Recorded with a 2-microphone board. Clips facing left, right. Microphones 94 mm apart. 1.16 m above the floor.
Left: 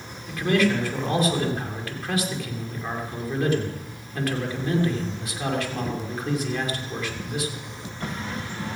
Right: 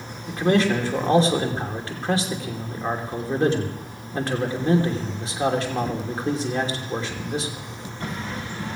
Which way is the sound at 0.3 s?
30° right (ahead or behind).